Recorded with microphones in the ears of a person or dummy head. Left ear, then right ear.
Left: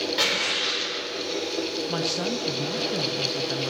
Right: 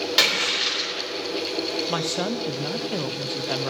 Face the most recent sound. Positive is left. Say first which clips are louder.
# right 1 dB
turn(degrees=-25)  # may be behind; listen again after turning